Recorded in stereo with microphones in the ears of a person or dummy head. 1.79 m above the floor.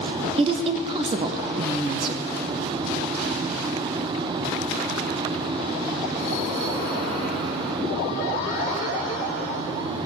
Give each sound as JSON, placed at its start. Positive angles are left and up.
{"t": 0.4, "sound": "a woman speaking", "side_deg": -30, "distance_m": 0.6}